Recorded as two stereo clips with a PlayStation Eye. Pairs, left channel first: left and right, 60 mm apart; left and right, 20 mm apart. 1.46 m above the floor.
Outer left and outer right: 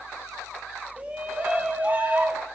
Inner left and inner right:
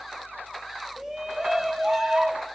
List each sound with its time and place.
1.0 s a shout: 25° right (ahead or behind), 2.5 m; by 2.5 s 30° right (ahead or behind), 3.5 m